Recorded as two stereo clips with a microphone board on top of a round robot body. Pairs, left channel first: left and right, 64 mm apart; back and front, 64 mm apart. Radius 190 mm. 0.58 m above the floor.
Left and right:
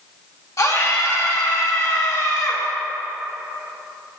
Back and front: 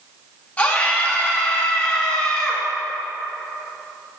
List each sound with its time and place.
0.6 s a scream: 115° left, 2.5 m; by 2.6 s 105° left, 3.5 m